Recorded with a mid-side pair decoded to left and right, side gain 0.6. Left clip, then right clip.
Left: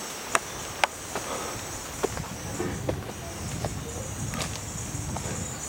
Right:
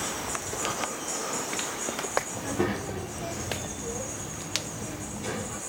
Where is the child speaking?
30° right, 2 m.